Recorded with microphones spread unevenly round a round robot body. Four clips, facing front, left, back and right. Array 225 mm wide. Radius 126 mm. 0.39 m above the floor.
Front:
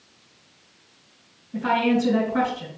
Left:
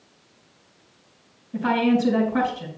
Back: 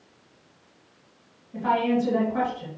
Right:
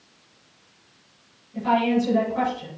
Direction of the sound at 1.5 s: 55° left.